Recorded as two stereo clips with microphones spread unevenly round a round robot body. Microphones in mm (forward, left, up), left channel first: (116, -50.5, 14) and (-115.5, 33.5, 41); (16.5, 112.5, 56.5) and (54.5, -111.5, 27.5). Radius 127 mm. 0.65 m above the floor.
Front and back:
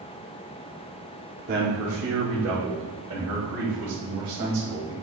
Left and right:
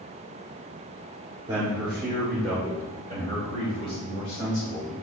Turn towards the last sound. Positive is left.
turn(degrees=150)